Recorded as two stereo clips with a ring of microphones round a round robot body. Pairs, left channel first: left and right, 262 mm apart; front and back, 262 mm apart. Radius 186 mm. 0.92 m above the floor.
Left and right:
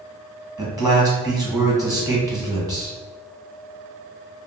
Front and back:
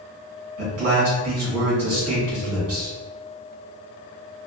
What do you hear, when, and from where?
0.6 s a man speaking: 165° right, 1.3 m